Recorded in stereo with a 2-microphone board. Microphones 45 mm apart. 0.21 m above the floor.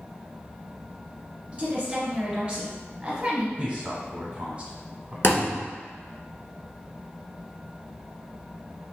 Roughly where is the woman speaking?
Right.